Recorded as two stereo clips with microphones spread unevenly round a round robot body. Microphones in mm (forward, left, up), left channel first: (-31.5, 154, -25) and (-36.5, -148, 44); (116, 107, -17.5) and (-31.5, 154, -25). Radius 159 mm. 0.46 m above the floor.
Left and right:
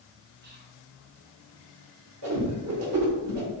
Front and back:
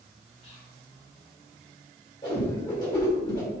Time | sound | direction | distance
0.4 | whispering | 40° right | 0.9 m
2.2 | a whoosh | 75° right | 1.6 m